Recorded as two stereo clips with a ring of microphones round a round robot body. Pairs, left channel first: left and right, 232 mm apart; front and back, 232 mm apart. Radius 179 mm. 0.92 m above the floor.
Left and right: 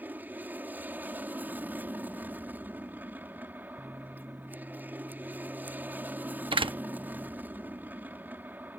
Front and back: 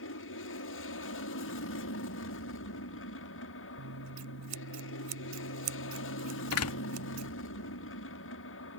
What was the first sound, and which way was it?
An aircraft, 10° right.